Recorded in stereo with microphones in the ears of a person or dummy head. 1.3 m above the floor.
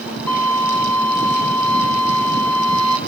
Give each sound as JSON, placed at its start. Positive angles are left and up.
{"t": 0.3, "sound": "a violin", "side_deg": 10, "distance_m": 3.0}